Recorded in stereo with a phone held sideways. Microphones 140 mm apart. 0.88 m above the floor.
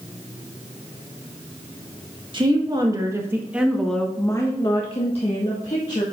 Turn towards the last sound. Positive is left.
turn(degrees=55)  # may be behind; listen again after turning